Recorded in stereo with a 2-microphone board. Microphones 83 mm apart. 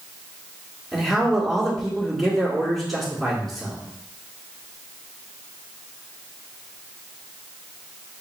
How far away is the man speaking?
About 1.5 m.